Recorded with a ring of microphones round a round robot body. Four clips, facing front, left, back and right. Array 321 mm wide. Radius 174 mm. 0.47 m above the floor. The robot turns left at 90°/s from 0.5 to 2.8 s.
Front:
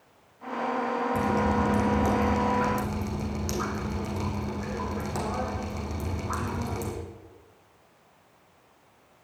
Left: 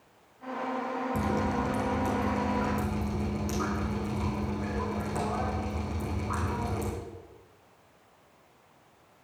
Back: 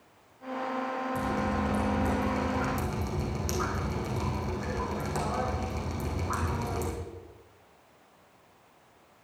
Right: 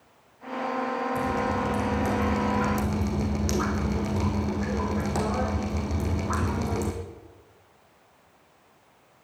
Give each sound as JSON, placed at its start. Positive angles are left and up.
{"t": 1.1, "sound": "dripping", "azimuth_deg": 55, "distance_m": 4.5}